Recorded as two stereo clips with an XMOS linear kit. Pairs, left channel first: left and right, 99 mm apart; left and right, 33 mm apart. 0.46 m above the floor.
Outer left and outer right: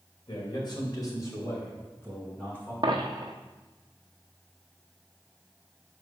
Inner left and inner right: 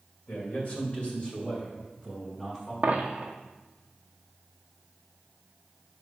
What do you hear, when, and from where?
0.3 s a man speaking: 55° left (ahead or behind), 2 m; by 2.7 s 15° left (ahead or behind), 3.5 m
2.8 s a dropped coin: 50° right (ahead or behind), 0.9 m